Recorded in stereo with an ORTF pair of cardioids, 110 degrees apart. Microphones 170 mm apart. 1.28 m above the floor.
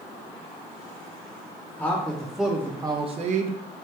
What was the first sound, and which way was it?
A man speaking, 15° left.